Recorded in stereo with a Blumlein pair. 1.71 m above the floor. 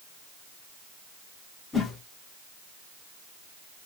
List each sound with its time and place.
1.7 s a whoosh: 15° left, 0.9 m